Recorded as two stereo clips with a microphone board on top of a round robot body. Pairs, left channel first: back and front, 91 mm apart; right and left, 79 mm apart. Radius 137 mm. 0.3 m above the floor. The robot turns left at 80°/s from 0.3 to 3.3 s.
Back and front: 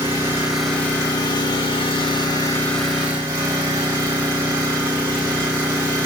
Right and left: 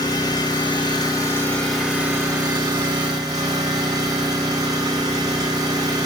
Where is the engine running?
65° right, 2.5 m; by 6.1 s 55° left, 2.5 m.